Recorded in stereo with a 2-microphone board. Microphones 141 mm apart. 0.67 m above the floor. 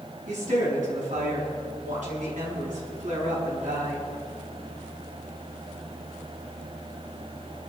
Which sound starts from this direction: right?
A woman speaking, at 0.3 s.